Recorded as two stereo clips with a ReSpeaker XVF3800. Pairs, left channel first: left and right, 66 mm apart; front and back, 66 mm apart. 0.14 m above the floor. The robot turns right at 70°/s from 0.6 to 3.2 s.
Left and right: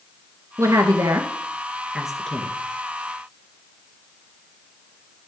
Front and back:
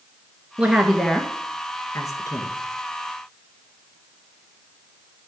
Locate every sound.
0.6 s a woman speaking: 110° right, 1.8 m; by 2.5 s 25° left, 1.8 m